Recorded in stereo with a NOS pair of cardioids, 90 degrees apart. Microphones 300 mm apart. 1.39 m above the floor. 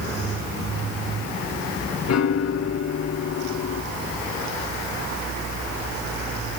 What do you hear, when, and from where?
2.1 s a piano: 60° left, 2 m